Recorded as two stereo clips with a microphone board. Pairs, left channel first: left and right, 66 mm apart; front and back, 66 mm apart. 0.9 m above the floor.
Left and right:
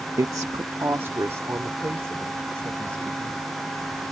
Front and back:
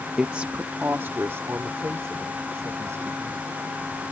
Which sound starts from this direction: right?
A woman speaking, at 0.2 s.